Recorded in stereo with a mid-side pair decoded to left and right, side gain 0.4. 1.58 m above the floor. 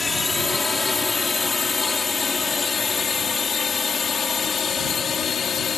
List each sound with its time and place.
0.0 s a drone: 15° left; by 5.8 s 50° left